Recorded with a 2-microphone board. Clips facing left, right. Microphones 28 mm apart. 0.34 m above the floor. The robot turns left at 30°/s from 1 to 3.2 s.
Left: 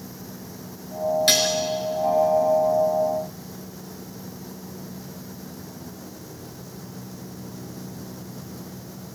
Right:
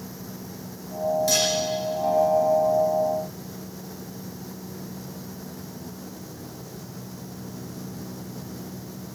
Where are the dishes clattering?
60° left (ahead or behind), 4 m; by 1.5 s 55° left (ahead or behind), 4 m.